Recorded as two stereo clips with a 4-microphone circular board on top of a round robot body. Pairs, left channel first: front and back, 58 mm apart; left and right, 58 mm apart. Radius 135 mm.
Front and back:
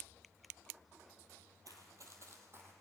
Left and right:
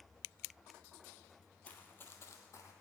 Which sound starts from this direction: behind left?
Running footsteps, at 1.6 s.